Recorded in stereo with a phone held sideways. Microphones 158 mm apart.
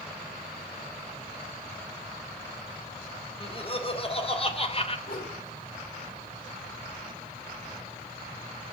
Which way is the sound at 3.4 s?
35° left (ahead or behind).